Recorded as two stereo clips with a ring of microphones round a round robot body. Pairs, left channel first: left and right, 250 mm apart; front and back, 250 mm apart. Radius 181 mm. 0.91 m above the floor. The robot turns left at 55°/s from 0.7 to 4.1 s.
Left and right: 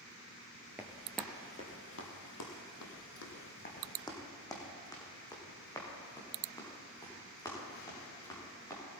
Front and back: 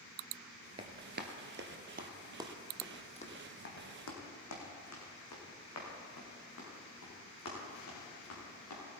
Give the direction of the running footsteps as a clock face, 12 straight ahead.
5 o'clock.